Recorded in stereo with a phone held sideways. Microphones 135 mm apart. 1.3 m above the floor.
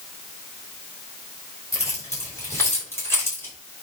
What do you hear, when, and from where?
1.7 s keys jangling: 20° left (ahead or behind), 5.5 m; by 3.5 s 15° left (ahead or behind), 4.5 m